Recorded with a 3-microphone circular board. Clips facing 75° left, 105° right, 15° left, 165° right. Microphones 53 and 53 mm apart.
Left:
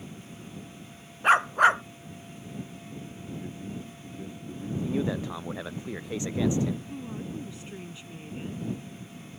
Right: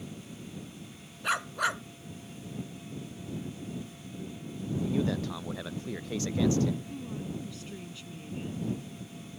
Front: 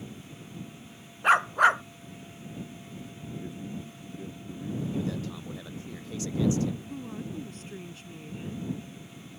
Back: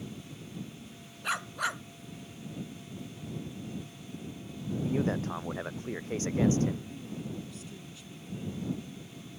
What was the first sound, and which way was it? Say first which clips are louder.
A dog barking: left 10 dB, front 12 dB; 40° left.